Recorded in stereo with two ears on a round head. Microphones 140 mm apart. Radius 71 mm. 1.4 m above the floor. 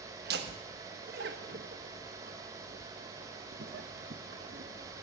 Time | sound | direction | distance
0.2 | laughter | 75° right (ahead or behind) | 1.4 m